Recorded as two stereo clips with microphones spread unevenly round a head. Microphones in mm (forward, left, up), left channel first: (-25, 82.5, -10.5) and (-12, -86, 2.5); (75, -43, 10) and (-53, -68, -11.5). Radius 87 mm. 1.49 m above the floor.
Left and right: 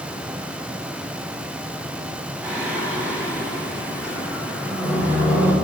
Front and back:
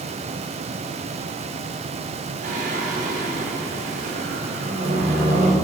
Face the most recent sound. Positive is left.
turn(degrees=-160)